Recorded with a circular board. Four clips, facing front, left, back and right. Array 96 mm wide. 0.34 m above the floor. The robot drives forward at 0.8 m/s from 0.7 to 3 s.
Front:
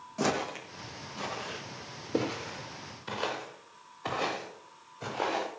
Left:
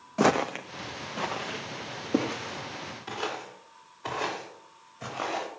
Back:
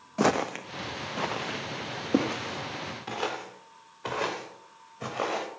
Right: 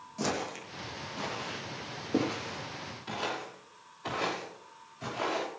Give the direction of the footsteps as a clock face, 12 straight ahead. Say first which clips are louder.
Left 10 dB, back 5 dB; 8 o'clock.